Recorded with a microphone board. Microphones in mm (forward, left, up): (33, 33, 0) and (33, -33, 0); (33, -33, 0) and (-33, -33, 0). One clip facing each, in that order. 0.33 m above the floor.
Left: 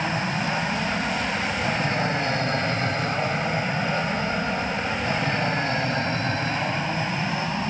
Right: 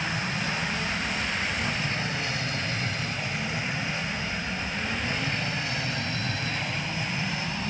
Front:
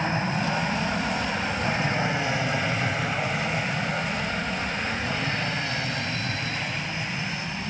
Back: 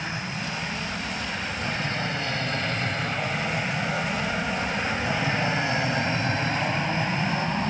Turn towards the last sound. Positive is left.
turn(degrees=140)